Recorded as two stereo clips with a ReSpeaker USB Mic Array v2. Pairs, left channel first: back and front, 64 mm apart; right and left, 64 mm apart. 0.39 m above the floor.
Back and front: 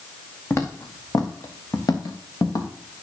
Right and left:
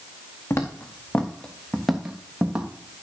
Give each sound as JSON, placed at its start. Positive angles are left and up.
{"t": 0.5, "sound": "footsteps", "azimuth_deg": -130, "distance_m": 1.4}